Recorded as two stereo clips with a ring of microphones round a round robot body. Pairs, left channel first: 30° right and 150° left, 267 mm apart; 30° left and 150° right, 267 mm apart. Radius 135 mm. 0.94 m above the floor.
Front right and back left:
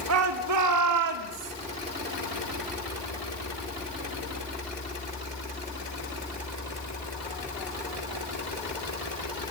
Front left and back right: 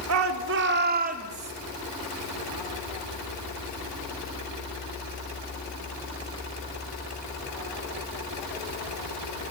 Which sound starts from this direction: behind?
A shout, at 0.1 s.